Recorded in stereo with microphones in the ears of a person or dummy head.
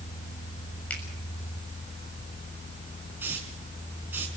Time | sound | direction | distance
0.9 | a finger snap | 10° left (ahead or behind) | 7 m
3.2 | a hiss | 10° right (ahead or behind) | 5 m